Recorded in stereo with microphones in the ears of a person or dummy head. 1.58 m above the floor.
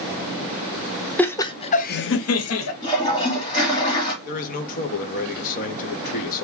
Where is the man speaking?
45° left (ahead or behind), 1.1 m.